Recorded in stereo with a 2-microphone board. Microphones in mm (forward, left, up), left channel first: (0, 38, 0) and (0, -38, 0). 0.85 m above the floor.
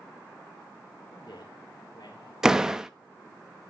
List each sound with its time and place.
1.1 s a man speaking: 70° left (ahead or behind), 2.5 m
2.4 s a door slam: 10° right (ahead or behind), 0.5 m